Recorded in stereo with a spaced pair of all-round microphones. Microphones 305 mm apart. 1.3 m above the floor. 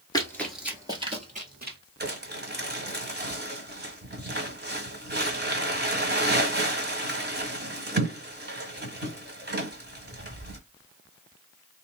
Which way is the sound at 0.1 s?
15° left (ahead or behind).